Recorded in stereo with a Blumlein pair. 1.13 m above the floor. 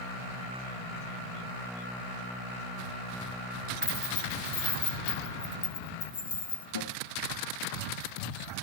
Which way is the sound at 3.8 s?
35° left.